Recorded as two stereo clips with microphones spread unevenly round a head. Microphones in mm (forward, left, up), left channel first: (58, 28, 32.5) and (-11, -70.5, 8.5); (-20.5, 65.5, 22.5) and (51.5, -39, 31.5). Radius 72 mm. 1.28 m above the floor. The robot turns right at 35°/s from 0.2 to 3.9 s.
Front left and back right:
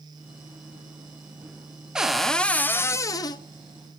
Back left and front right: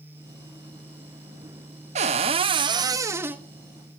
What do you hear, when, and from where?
1.9 s a cupboard door: 35° right, 0.9 m; by 3.4 s 20° left, 0.9 m